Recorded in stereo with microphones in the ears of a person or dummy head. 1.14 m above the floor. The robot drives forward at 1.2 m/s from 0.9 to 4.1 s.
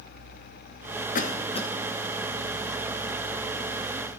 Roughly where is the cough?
Left.